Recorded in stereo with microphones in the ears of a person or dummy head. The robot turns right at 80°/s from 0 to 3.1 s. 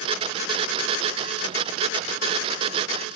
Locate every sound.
Only background noise.